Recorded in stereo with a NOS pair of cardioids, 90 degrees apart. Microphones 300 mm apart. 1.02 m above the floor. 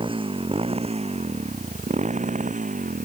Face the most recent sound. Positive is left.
turn(degrees=-25)